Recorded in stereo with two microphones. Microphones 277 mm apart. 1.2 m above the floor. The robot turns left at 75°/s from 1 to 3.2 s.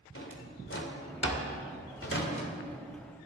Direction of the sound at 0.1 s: 50° left (ahead or behind).